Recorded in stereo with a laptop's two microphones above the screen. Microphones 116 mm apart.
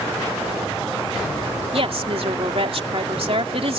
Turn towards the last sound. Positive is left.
turn(degrees=-60)  # may be behind; listen again after turning